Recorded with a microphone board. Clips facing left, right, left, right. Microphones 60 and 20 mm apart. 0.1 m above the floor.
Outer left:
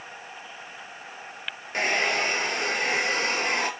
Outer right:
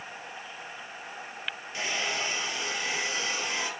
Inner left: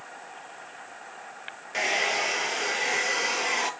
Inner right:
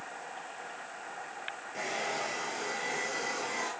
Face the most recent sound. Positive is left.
turn(degrees=55)  # may be behind; listen again after turning